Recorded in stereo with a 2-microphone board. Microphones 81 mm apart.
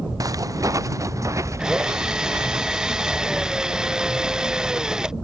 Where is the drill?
10° right (ahead or behind).